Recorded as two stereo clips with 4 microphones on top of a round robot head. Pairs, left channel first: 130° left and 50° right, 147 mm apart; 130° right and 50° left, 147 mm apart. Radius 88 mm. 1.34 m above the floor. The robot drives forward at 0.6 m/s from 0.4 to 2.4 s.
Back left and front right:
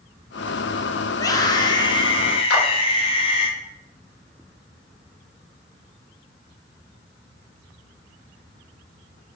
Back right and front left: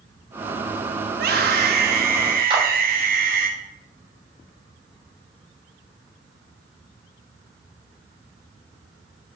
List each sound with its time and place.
1.1 s a scream: 60° left, 3 m; by 3.5 s 75° left, 2.5 m
2.5 s a clap: 110° left, 9 m